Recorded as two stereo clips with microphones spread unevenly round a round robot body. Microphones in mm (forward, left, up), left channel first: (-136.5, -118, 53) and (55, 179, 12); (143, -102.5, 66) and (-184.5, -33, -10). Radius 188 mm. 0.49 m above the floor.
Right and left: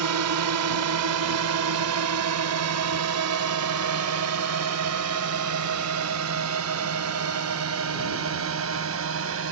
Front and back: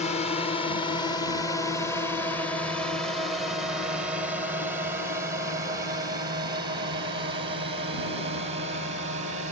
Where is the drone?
65° left; by 9.5 s 105° left.